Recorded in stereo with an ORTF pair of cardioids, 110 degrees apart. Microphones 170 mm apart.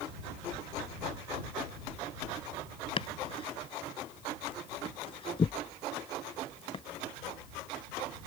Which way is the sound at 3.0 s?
30° left.